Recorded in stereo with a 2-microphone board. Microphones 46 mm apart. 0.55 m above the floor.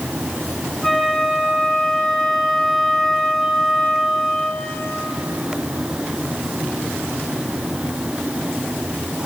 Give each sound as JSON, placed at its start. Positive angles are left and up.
{"t": 0.8, "sound": "a flute", "side_deg": 5, "distance_m": 3.5}